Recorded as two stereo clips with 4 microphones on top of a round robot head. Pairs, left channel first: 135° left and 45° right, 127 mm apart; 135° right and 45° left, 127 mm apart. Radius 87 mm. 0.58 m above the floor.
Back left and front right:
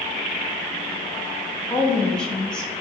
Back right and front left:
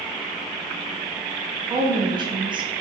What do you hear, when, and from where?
1.7 s a woman speaking: 55° left, 0.8 m